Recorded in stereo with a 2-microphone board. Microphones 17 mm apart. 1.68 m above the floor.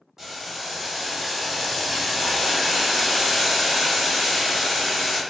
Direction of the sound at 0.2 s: 30° right (ahead or behind).